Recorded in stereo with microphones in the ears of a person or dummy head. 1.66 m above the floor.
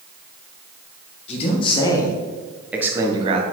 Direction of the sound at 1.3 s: 40° left (ahead or behind).